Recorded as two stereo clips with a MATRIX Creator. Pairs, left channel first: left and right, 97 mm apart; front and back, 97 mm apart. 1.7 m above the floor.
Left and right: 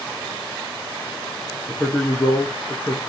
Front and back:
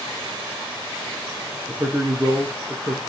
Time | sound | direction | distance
1.7 | a man speaking | 145° left | 0.7 m